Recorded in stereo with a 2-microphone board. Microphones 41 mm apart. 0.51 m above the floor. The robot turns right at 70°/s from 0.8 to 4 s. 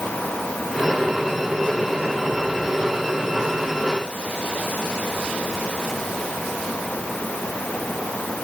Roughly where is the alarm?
I don't hear an alarm.